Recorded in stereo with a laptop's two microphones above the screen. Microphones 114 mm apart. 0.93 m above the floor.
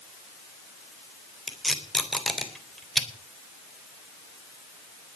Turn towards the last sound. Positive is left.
turn(degrees=0)  # may be behind; listen again after turning